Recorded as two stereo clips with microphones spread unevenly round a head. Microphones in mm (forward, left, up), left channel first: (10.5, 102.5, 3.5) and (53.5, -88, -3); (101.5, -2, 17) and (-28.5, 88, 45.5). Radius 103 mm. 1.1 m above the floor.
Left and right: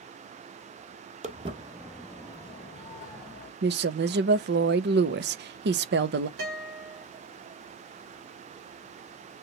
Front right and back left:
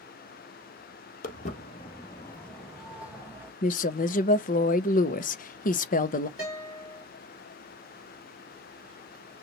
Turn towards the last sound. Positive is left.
turn(degrees=-105)